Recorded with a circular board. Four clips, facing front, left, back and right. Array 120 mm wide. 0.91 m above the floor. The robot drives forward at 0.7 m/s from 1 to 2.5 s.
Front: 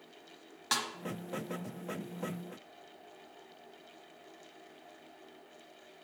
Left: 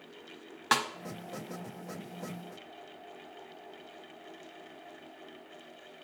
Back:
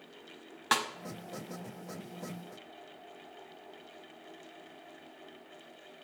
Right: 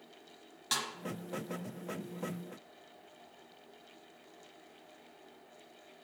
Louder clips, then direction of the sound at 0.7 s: Left 10 dB, back 5 dB; 115° left.